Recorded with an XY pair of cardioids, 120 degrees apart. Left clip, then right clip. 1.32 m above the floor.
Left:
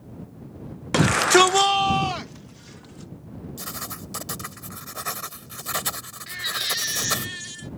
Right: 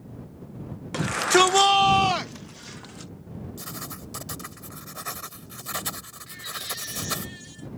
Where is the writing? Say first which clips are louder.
Left 5 dB; 20° left.